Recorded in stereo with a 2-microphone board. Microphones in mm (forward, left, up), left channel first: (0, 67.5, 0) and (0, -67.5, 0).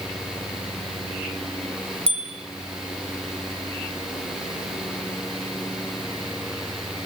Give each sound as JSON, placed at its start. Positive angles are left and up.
{"t": 2.1, "sound": "a bicycle bell", "side_deg": -45, "distance_m": 6.5}